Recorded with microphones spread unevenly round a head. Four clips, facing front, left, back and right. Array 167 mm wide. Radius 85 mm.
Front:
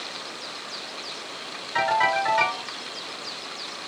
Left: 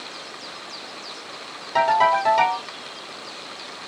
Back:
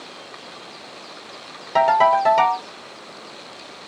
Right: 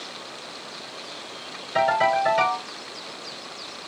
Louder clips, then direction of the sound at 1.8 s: Left 3 dB, back 7 dB; 175° left.